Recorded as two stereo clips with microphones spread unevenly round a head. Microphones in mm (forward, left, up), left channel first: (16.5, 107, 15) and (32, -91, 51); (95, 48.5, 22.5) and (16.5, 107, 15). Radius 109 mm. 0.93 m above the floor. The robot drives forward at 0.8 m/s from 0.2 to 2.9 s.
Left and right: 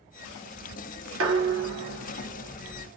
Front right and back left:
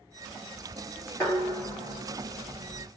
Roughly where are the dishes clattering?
Behind right.